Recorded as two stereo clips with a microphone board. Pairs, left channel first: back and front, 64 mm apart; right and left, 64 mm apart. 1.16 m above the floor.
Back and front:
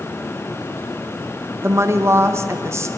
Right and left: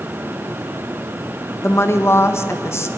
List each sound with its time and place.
1.6 s a woman speaking: 45° right, 1.3 m